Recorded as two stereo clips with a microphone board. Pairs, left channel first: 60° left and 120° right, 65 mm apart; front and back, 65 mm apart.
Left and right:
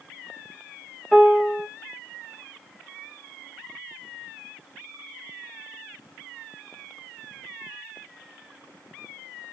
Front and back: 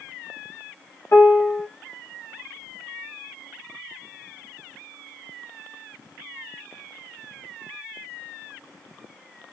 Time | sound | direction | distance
1.1 | a piano | 15° right | 0.6 m